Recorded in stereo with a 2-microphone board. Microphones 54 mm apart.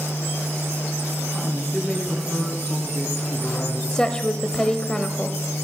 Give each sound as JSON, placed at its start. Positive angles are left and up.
{"t": 1.3, "sound": "a man speaking", "side_deg": 0, "distance_m": 2.5}
{"t": 3.9, "sound": "a woman speaking", "side_deg": 15, "distance_m": 1.0}